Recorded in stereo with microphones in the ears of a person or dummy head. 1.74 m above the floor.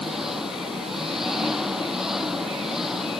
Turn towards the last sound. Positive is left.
turn(degrees=0)  # may be behind; listen again after turning